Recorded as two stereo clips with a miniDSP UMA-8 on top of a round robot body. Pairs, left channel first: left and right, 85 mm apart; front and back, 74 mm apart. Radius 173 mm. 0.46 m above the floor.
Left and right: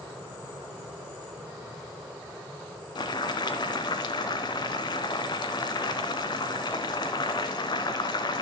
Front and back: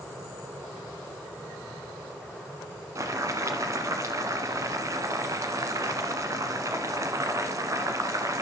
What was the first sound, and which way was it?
Boiling, 130° left.